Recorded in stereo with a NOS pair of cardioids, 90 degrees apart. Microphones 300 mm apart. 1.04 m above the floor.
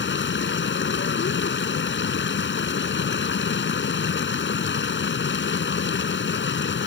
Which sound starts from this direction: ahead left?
Running water, at 0.0 s.